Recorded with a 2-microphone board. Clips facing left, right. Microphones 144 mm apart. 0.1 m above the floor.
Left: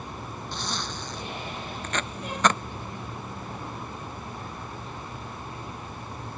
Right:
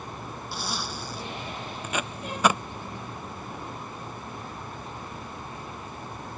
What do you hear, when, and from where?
0.5 s a zipper: 10° right (ahead or behind)
1.8 s tape being pulled: 10° right (ahead or behind)